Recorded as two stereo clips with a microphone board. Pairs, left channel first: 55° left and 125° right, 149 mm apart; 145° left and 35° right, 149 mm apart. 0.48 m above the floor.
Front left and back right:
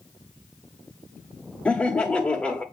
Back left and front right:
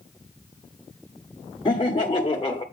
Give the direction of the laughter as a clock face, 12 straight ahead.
8 o'clock.